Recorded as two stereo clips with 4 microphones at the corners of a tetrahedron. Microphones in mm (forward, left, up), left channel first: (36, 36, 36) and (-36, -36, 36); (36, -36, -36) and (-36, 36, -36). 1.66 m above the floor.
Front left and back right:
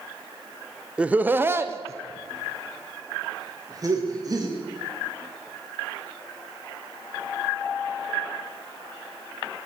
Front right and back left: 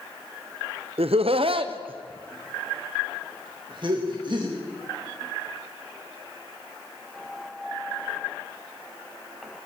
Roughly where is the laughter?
Behind left.